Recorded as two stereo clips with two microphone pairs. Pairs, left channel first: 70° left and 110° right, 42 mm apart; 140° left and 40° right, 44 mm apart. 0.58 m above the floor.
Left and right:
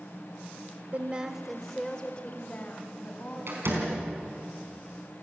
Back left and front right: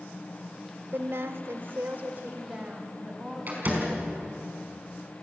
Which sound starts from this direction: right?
A door slam, at 3.5 s.